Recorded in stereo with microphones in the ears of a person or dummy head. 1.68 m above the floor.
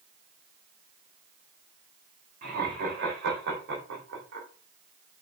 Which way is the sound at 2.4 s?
50° right (ahead or behind).